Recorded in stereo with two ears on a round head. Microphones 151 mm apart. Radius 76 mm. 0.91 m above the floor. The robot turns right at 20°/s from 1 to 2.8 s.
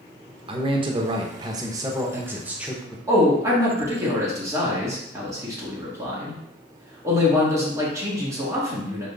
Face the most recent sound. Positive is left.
turn(degrees=-20)  # may be behind; listen again after turning